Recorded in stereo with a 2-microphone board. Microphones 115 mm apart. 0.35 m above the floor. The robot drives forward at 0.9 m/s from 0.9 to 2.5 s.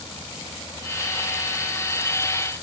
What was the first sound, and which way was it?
Only background noise.